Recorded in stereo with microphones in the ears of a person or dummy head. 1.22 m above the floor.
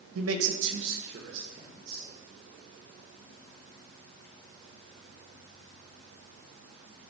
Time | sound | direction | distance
0.1 | a man speaking | 80° right | 1.1 m